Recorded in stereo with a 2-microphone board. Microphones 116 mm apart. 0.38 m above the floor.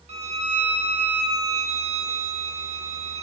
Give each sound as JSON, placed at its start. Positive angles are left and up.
{"t": 0.1, "sound": "a violin", "side_deg": -75, "distance_m": 0.6}